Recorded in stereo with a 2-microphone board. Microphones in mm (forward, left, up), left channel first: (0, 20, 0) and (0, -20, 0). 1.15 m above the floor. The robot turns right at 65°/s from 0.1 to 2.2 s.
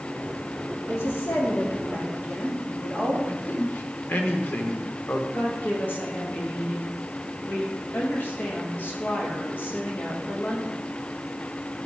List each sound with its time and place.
0.9 s a woman speaking: 65° left, 3 m; by 3.2 s 150° left, 3 m
3.3 s a man speaking: 55° left (ahead or behind), 1.3 m
5.3 s a woman speaking: 50° left (ahead or behind), 2 m